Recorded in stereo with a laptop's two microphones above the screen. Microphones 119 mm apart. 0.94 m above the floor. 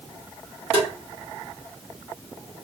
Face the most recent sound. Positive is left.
turn(degrees=-50)  # may be behind; listen again after turning